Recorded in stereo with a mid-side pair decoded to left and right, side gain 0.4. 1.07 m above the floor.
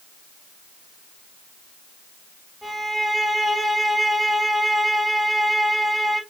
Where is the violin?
15° right, 3.5 m.